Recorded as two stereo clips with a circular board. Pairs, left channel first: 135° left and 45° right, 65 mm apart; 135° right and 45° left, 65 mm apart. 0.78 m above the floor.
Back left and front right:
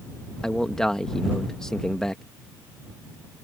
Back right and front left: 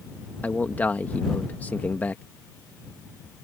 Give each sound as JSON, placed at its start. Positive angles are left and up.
{"t": 0.4, "sound": "a man speaking", "azimuth_deg": -155}